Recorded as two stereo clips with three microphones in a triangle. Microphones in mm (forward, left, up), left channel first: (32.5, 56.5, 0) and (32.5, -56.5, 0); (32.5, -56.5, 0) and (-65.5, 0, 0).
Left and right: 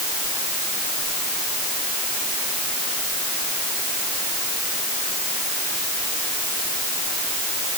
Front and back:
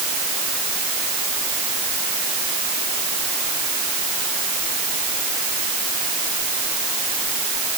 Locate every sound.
Only background noise.